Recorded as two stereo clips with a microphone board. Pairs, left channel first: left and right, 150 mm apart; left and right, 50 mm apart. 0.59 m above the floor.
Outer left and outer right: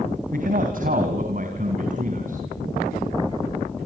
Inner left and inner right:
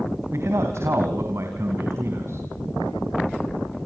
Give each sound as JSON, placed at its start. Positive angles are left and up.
{"t": 0.3, "sound": "a man speaking", "side_deg": -65, "distance_m": 3.5}